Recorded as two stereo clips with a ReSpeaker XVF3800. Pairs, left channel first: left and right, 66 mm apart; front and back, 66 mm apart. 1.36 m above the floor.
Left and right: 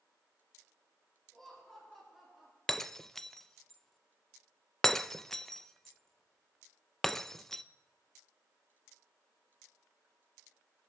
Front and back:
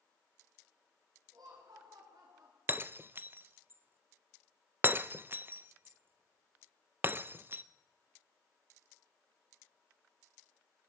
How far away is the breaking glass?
About 0.5 m.